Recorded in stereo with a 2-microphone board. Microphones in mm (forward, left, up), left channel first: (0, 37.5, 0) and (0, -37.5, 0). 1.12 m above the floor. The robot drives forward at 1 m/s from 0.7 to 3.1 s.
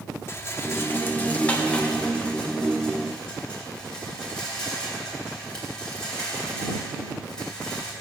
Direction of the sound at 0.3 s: 35° left (ahead or behind).